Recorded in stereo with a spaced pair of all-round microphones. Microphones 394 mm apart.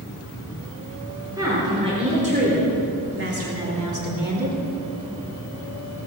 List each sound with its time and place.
1.4 s a woman speaking: 10° right (ahead or behind), 4.5 m; by 4.6 s 65° right (ahead or behind), 2.5 m